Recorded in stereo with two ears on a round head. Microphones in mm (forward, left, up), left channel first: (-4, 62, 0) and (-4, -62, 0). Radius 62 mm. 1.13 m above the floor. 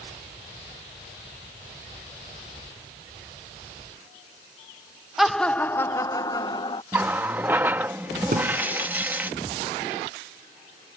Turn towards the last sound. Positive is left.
turn(degrees=-65)  # may be behind; listen again after turning